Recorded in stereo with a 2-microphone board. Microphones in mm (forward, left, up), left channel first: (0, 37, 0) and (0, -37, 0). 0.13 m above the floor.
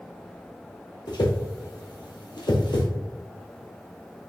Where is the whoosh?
75° left (ahead or behind), 1.1 m.